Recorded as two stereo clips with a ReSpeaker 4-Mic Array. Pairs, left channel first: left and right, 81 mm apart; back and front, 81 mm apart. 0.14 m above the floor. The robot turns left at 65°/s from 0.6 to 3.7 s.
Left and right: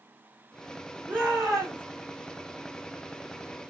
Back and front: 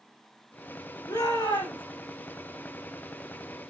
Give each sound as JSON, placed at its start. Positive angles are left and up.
{"t": 1.1, "sound": "a shout", "azimuth_deg": -155, "distance_m": 9.5}